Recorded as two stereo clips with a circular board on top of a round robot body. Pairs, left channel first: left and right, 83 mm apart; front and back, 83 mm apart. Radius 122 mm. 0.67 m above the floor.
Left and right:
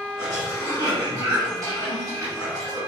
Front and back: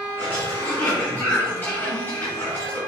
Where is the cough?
55° right, 1.7 m.